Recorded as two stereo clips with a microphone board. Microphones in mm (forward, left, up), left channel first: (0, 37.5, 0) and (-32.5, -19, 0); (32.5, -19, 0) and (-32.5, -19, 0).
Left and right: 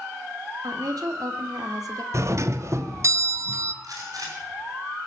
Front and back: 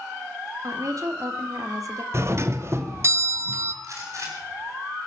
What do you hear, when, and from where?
0.6 s a woman speaking: 145° right, 2 m
2.1 s a doorbell: 145° right, 0.9 m
3.8 s a gunshot: 145° right, 5.5 m